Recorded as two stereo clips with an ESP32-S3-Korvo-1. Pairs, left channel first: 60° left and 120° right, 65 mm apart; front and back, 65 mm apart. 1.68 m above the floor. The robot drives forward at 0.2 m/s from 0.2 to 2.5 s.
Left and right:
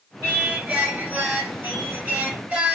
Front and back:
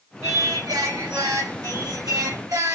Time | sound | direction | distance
0.2 | singing | 175° left | 3.5 m